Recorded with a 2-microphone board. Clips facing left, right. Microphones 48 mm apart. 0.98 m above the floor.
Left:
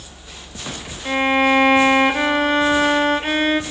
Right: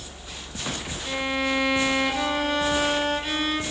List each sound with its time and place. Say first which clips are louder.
1.1 s a violin: left 10 dB; 50° left (ahead or behind), 0.9 m